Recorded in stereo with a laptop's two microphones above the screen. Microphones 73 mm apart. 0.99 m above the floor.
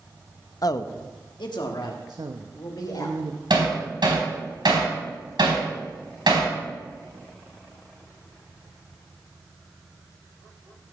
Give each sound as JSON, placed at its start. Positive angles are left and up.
{"t": 0.6, "sound": "a man speaking", "side_deg": 50, "distance_m": 0.7}
{"t": 2.1, "sound": "a woman speaking", "side_deg": -60, "distance_m": 0.8}
{"t": 3.5, "sound": "hammering", "side_deg": -85, "distance_m": 3.5}